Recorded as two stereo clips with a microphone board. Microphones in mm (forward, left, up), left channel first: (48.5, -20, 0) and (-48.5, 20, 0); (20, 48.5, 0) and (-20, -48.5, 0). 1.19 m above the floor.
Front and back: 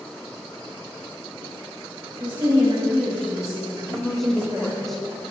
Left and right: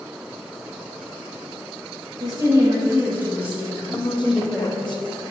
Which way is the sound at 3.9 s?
65° left.